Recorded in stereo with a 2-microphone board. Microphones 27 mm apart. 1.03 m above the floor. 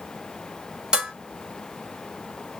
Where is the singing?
No singing in this recording.